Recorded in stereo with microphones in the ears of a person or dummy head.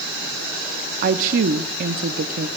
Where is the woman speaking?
45° right (ahead or behind), 0.7 m.